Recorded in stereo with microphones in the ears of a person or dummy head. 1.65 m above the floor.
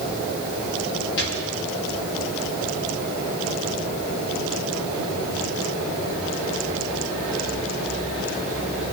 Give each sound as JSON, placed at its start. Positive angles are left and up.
{"t": 1.2, "sound": "a gunshot", "side_deg": 60, "distance_m": 5.5}